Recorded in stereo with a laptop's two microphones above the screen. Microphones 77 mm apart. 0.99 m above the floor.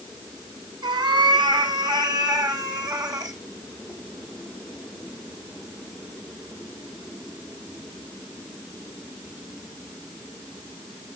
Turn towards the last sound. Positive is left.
turn(degrees=-55)  # may be behind; listen again after turning